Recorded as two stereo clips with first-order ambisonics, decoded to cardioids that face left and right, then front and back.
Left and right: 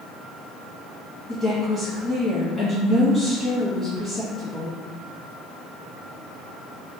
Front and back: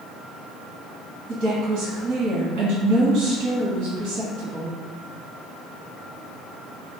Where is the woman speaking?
170° left, 1.9 m.